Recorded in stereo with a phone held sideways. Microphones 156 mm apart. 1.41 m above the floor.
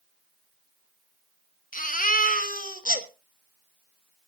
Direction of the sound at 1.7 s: 60° left (ahead or behind).